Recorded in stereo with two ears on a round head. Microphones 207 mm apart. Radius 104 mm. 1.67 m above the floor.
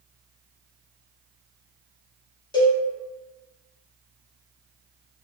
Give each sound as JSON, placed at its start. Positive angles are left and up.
{"t": 2.5, "sound": "a cowbell", "side_deg": 20, "distance_m": 0.7}